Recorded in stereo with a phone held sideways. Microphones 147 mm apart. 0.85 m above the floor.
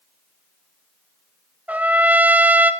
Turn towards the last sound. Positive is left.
turn(degrees=-10)  # may be behind; listen again after turning